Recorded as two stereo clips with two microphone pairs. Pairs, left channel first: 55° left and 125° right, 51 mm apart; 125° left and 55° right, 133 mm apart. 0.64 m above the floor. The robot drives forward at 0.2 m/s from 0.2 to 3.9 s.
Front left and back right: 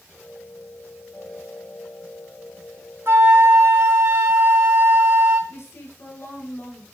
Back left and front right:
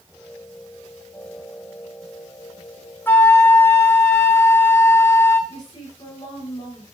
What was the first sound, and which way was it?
A flute, 160° right.